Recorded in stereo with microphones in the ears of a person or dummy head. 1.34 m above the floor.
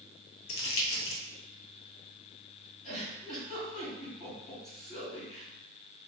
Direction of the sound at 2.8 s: 45° left (ahead or behind).